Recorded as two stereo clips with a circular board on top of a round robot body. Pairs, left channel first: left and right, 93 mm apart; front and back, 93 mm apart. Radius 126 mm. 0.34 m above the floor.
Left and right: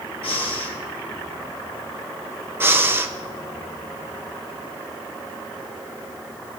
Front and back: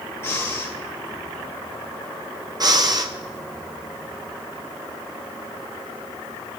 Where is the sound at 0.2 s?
65° left, 2.5 m.